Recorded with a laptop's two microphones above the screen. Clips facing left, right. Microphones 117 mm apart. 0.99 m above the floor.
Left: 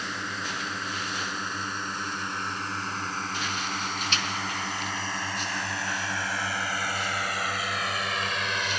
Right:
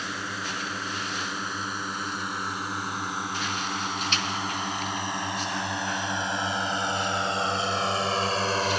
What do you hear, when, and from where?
0.0 s a drone: 5° right (ahead or behind); by 8.8 s 40° right (ahead or behind)